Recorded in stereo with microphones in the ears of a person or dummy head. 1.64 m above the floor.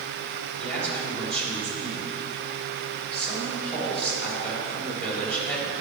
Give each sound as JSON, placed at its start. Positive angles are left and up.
{"t": 0.6, "sound": "a man speaking", "side_deg": 5, "distance_m": 3.5}